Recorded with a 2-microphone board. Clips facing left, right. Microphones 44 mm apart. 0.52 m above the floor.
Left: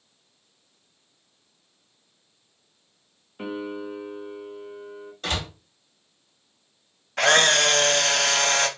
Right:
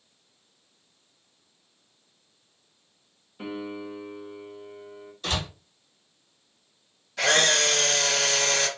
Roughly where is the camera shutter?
Left.